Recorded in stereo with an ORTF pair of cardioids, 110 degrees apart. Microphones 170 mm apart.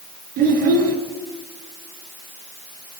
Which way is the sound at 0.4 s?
70° right.